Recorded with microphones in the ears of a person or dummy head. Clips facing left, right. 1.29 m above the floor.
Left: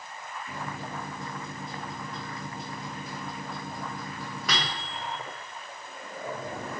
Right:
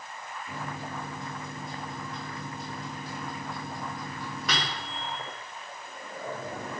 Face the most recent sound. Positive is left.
turn(degrees=-5)  # may be behind; listen again after turning